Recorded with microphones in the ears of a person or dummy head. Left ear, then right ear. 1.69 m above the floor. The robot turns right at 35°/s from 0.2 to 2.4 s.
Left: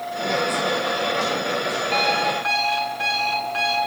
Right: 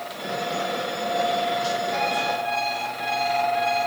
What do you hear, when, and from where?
1.9 s an alarm clock: 80° left, 9.5 m